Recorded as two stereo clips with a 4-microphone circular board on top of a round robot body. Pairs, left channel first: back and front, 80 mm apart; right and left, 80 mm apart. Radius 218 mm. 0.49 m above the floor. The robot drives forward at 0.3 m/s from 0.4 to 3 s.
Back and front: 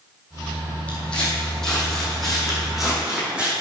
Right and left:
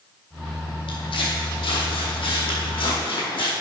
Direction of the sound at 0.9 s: 105° right.